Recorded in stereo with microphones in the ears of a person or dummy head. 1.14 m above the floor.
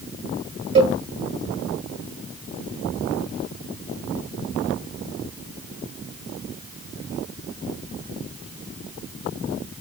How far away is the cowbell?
About 1.6 m.